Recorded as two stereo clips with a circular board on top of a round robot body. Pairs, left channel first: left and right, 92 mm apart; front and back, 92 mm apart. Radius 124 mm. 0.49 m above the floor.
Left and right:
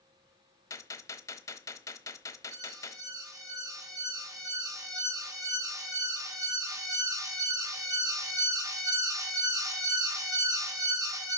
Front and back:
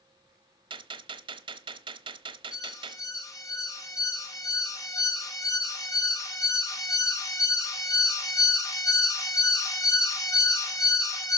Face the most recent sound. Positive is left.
turn(degrees=-45)